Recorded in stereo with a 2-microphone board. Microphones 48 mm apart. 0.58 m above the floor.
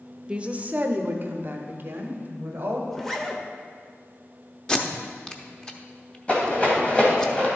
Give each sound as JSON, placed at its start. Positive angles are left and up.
{"t": 0.3, "sound": "a woman speaking", "side_deg": -20, "distance_m": 0.6}
{"t": 2.9, "sound": "a zipper", "side_deg": 10, "distance_m": 0.8}
{"t": 4.7, "sound": "tape being pulled", "side_deg": 20, "distance_m": 0.8}
{"t": 6.3, "sound": "a rattle", "side_deg": 30, "distance_m": 2.5}